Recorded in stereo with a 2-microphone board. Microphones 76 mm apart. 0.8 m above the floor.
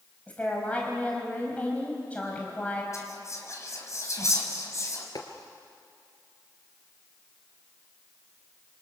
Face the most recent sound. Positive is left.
turn(degrees=55)  # may be behind; listen again after turning